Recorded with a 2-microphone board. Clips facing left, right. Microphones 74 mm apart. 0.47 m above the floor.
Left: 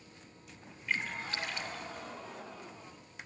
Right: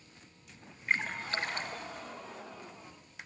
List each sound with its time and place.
0.9 s a splash: 40° right (ahead or behind), 1.9 m